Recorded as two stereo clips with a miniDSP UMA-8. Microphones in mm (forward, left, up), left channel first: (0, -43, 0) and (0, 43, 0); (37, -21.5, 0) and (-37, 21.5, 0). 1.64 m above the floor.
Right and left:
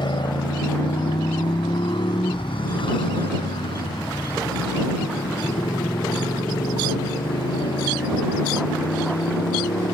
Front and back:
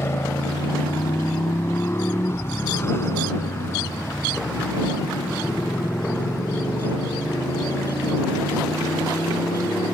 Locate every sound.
0.0 s a motorcycle: 85° right; by 9.9 s 90° right